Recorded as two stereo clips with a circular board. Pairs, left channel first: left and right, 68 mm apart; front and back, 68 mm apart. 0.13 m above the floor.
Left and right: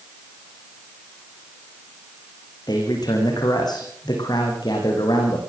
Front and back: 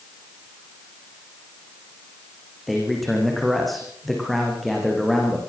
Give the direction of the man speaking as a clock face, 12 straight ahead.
9 o'clock.